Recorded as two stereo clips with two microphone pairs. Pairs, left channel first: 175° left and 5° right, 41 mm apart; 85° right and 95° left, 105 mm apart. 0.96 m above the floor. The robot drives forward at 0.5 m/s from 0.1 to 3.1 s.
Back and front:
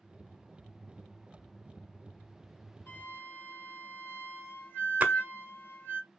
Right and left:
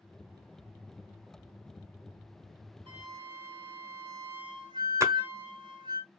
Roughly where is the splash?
Ahead left.